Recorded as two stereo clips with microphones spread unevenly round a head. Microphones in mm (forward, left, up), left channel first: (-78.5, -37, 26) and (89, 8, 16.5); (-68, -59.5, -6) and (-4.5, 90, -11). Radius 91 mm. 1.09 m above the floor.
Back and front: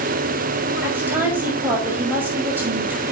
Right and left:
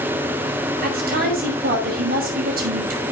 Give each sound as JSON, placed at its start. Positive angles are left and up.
{"t": 0.8, "sound": "a woman speaking", "azimuth_deg": 95, "distance_m": 5.5}